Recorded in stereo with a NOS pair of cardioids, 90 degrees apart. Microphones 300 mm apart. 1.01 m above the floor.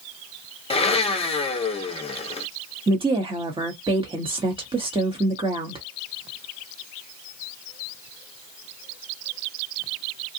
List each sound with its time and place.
0.7 s a blender: 20° left, 0.8 m
2.9 s a woman speaking: 20° right, 1.0 m